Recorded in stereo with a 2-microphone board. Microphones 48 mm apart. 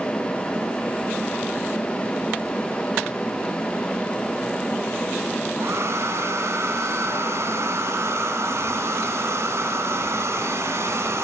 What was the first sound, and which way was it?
A hair dryer, 65° right (ahead or behind).